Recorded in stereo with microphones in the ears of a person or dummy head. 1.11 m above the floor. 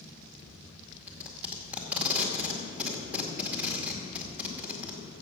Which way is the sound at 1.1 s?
10° right (ahead or behind).